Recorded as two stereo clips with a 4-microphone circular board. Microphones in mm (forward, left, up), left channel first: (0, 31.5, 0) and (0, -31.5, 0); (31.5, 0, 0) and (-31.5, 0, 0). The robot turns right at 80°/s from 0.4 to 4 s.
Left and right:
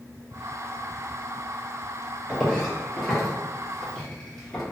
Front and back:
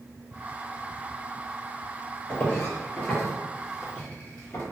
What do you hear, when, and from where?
2.3 s footsteps: 5° right, 1.4 m; by 4.6 s 20° left, 1.6 m